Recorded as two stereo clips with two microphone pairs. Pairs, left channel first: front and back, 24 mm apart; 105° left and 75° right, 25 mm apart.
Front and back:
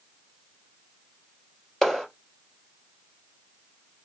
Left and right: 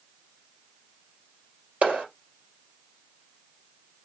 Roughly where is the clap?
Right.